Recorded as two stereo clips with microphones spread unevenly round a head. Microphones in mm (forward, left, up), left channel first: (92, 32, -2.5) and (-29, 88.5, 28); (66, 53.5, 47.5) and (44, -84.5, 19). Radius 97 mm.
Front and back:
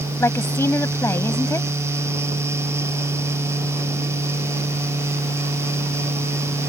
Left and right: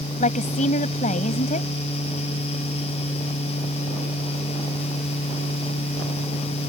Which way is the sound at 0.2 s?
50° left.